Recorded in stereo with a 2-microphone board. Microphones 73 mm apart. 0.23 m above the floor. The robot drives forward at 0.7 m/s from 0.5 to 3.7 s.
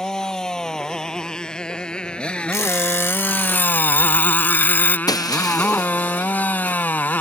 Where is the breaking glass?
60° left (ahead or behind).